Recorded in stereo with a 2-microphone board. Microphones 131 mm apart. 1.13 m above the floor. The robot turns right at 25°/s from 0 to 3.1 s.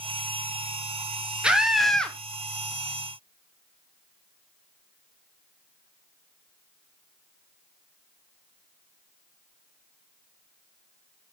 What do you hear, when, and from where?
1.4 s a scream: 10° right (ahead or behind), 1.2 m; by 2.2 s 10° left (ahead or behind), 1.2 m